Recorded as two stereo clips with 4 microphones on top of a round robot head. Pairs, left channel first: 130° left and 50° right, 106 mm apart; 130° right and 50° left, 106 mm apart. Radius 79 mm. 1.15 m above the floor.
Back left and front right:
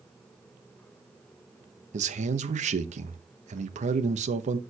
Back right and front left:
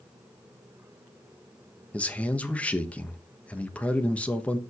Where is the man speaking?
50° right, 1.1 m.